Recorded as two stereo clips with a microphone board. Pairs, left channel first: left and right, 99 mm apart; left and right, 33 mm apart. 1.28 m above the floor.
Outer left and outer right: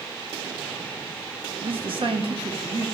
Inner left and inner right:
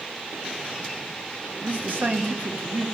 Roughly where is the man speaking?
Right.